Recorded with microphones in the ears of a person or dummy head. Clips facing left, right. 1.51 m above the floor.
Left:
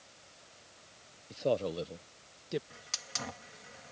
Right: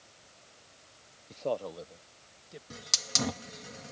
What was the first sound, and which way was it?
A man speaking, 5° left (ahead or behind).